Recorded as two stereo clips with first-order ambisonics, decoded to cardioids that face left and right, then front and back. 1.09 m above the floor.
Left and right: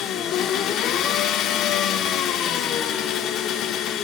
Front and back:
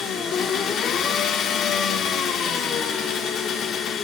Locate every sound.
0.0 s an engine running: 50° left, 1.0 m